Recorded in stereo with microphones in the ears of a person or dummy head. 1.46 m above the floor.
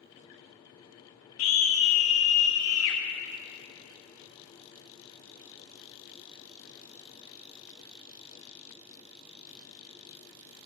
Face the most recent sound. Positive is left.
turn(degrees=75)  # may be behind; listen again after turning